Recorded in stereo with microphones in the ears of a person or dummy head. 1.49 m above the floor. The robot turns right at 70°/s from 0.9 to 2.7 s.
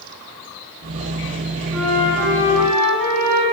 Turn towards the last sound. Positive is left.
turn(degrees=-10)